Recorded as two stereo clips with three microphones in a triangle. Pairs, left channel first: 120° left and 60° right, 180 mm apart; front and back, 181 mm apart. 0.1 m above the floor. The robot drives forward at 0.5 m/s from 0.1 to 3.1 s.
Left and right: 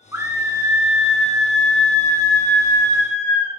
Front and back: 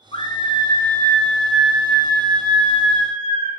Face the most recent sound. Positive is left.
turn(degrees=180)